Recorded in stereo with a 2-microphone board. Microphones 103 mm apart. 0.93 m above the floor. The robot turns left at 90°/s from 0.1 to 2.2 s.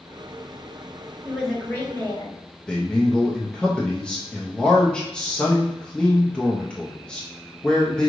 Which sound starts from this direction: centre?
A man speaking, at 2.7 s.